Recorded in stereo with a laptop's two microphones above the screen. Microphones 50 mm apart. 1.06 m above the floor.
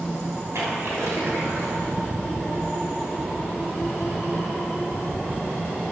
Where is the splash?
80° right, 3 m.